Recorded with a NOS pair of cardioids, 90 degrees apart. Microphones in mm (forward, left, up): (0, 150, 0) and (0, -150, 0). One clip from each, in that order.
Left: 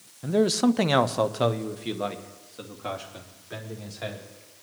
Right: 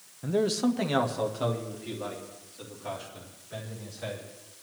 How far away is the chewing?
No chewing in this recording.